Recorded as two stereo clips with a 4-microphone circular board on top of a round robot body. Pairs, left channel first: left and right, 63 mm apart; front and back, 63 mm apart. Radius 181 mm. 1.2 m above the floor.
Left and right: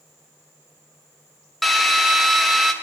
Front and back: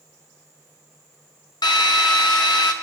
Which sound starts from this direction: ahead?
A drill, at 1.6 s.